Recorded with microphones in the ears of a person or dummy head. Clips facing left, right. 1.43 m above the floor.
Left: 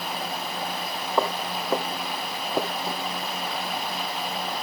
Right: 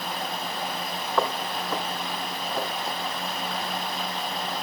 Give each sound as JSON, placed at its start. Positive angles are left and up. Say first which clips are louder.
{"t": 1.2, "sound": "footsteps", "louder": "left 1 dB", "side_deg": 10, "distance_m": 3.5}